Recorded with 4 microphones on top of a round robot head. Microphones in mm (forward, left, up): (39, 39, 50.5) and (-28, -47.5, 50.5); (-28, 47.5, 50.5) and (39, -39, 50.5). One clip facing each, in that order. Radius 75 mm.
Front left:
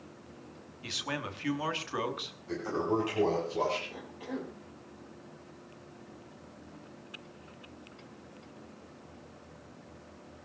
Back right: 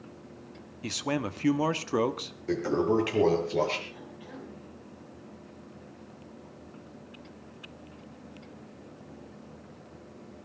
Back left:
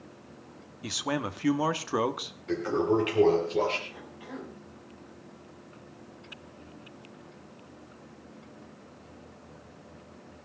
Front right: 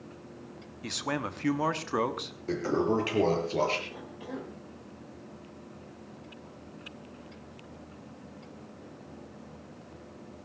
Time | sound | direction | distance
0.8 | a man speaking | 150° right | 1.5 m
2.5 | a toilet flushing | 105° right | 5 m
3.9 | a cough | 10° left | 2.5 m